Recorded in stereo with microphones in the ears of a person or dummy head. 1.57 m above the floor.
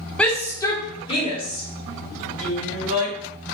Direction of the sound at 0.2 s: 10° left (ahead or behind).